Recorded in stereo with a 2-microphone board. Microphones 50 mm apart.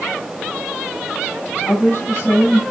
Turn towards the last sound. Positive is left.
turn(degrees=50)  # may be behind; listen again after turning